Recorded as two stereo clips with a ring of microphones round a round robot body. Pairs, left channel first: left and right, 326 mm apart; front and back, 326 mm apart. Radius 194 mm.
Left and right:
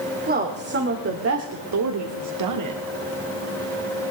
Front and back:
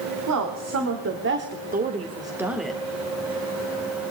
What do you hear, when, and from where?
0.3 s a woman speaking: 150° right, 2 m; by 2.8 s 85° right, 1.6 m